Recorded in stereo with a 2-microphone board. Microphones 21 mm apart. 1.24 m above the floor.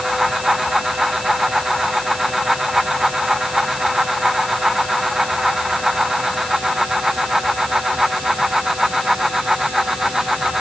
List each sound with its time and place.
Only background noise.